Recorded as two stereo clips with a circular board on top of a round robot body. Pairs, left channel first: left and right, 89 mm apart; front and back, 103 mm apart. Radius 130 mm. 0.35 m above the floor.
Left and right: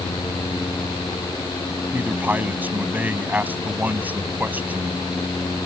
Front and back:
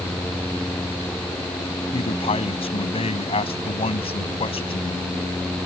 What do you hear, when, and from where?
1.9 s a man speaking: 20° right